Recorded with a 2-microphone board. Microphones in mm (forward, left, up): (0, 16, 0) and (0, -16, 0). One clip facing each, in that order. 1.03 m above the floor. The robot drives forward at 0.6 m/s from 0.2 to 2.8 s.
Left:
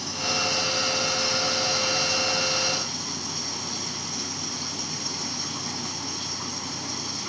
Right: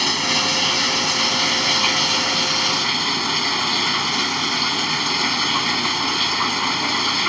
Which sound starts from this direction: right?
Running water, at 0.0 s.